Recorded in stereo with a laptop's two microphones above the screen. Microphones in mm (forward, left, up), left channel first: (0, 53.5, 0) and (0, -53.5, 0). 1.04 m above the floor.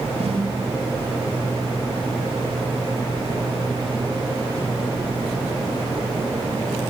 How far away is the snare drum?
About 4 m.